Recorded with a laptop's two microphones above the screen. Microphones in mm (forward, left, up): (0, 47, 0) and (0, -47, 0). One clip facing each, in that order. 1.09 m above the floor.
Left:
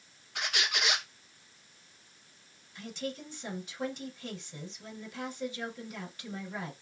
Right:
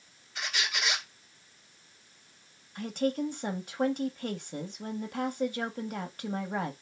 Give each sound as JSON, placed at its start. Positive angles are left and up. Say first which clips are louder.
{"t": 0.3, "sound": "a squeak", "louder": "left 1 dB", "side_deg": 65, "distance_m": 0.9}
{"t": 2.8, "sound": "a woman speaking", "louder": "right 9 dB", "side_deg": -55, "distance_m": 0.6}